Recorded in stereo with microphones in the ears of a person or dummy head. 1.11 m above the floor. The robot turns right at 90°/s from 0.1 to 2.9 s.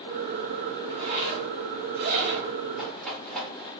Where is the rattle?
5° right (ahead or behind), 1.3 m; by 3.7 s 5° left (ahead or behind), 1.3 m.